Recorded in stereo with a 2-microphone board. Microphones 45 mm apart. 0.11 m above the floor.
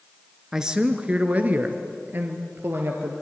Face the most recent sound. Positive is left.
turn(degrees=-60)  # may be behind; listen again after turning